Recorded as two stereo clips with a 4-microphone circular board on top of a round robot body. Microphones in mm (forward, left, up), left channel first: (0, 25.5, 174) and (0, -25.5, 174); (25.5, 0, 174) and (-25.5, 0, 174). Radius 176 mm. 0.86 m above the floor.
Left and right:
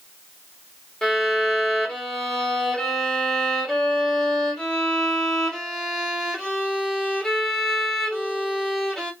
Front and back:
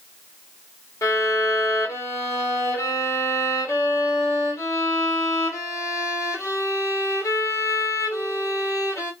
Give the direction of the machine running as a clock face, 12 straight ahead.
No machine running in this recording.